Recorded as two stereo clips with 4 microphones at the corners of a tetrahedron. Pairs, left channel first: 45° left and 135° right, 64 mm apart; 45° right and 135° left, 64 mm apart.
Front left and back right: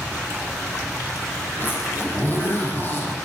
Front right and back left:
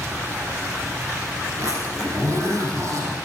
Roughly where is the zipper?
Left.